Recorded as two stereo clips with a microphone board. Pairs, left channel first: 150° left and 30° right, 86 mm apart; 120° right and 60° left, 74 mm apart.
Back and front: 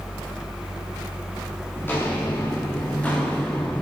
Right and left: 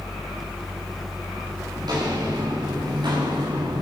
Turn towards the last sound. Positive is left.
turn(degrees=70)